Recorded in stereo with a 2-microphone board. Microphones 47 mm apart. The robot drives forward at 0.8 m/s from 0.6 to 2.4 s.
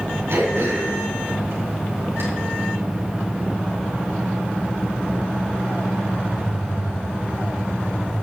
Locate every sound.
0.3 s throat clearing: 70° right (ahead or behind), 3 m; by 2.2 s 55° right (ahead or behind), 3.5 m